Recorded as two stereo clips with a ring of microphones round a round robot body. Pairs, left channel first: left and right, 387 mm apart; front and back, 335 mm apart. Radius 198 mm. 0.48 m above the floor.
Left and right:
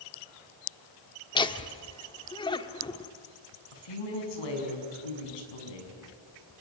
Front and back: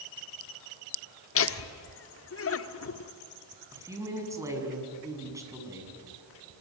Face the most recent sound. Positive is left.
turn(degrees=100)